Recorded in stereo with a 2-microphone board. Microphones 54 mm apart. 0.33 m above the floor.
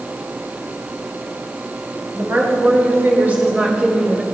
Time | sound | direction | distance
2.1 | a woman speaking | 50° right (ahead or behind) | 1.9 m